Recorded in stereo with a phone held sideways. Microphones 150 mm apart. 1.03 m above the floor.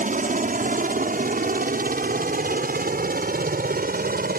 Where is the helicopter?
60° right (ahead or behind); by 4.4 s 70° right (ahead or behind).